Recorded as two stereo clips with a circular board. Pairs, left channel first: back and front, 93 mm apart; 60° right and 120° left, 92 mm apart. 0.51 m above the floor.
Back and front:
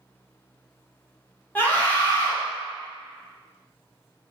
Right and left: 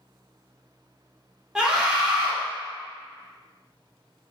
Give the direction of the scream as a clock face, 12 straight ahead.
6 o'clock.